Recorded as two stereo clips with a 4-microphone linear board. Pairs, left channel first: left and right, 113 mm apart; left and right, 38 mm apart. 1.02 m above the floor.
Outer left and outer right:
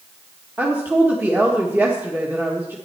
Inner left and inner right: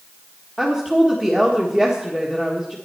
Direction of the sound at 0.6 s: 15° right (ahead or behind).